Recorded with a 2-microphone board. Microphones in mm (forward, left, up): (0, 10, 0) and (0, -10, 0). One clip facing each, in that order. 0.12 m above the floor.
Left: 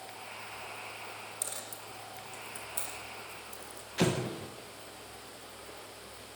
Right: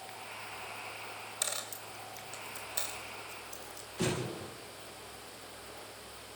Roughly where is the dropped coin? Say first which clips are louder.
Right 3 dB; right.